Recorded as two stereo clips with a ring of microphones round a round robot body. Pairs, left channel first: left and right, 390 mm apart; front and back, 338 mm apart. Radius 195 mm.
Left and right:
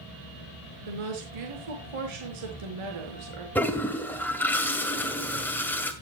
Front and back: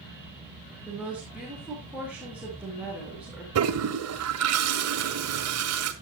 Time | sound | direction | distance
0.9 | a woman speaking | 95° right | 5 m
3.5 | a toilet flushing | 175° left | 1.7 m